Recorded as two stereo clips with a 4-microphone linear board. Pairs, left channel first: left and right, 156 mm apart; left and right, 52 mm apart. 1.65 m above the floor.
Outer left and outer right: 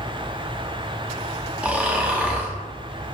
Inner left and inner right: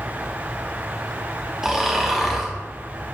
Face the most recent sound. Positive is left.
turn(degrees=-10)  # may be behind; listen again after turning